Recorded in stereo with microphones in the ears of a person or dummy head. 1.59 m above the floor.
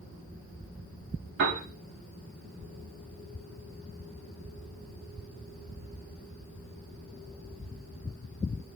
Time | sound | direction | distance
1.4 | a piano | 60° right (ahead or behind) | 0.5 m